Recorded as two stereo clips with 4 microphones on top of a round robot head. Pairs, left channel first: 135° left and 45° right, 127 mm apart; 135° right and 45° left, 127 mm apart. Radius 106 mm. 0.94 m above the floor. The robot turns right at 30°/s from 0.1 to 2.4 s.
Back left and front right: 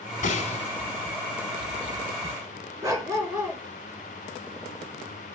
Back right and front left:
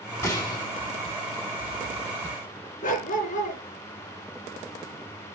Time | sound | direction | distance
0.2 | a gunshot | 160° left | 4 m
2.8 | a dog barking | 115° right | 4 m